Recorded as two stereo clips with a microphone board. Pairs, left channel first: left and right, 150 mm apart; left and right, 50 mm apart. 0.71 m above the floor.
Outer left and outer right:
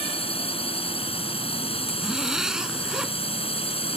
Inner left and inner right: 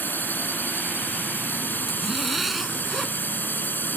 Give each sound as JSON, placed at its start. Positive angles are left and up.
{"t": 0.0, "sound": "a drone", "side_deg": 40}
{"t": 1.9, "sound": "a zipper", "side_deg": -5}